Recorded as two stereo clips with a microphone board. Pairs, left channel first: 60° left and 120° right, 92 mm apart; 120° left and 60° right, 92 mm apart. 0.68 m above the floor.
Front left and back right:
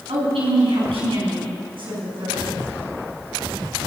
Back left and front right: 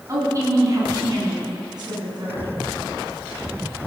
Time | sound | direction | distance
0.1 | a woman speaking | 115° right | 5 m